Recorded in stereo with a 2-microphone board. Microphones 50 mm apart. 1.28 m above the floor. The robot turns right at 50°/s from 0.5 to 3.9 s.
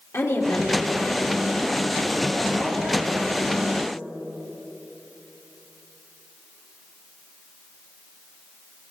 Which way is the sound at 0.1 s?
85° left.